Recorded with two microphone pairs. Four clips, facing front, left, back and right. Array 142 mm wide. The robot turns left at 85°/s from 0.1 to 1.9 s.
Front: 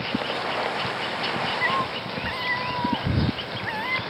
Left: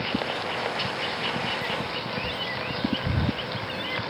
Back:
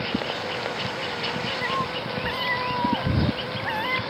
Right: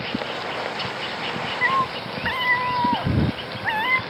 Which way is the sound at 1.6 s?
75° right.